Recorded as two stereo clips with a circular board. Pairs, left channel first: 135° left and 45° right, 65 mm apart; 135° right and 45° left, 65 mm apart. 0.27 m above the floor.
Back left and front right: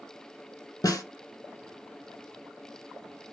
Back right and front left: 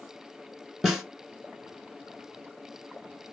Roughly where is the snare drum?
Behind left.